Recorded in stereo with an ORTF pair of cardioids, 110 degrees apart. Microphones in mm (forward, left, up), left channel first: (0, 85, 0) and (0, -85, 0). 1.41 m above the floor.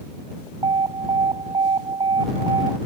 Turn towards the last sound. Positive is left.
turn(degrees=-30)